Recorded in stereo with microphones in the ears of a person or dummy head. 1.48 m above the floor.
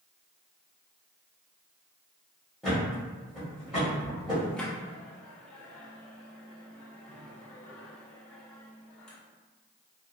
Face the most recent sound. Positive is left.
turn(degrees=5)  # may be behind; listen again after turning